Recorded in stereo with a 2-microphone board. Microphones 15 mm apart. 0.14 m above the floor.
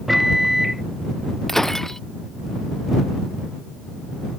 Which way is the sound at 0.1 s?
5° right (ahead or behind).